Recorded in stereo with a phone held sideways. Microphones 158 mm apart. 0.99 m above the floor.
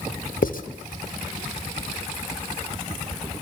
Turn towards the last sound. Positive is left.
turn(degrees=65)  # may be behind; listen again after turning